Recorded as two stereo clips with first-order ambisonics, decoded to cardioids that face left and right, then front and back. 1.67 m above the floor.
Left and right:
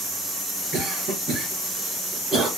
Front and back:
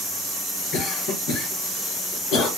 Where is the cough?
15° right, 1.1 m.